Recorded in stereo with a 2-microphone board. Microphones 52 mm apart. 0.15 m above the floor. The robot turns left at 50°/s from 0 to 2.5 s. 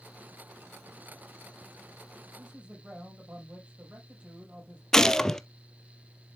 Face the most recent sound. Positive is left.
turn(degrees=10)  # may be behind; listen again after turning